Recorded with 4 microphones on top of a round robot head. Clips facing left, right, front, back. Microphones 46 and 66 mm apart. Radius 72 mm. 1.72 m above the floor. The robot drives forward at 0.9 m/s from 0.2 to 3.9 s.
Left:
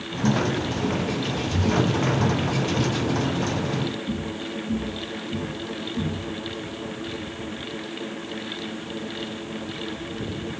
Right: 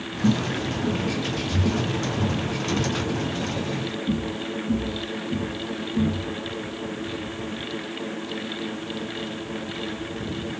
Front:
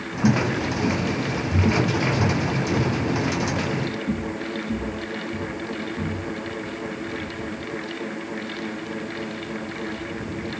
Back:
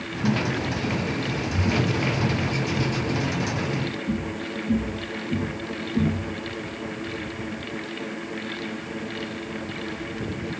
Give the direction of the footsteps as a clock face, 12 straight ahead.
12 o'clock.